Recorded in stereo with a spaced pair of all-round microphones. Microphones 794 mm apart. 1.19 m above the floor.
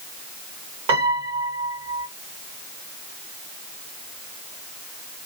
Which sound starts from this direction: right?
A piano, at 0.9 s.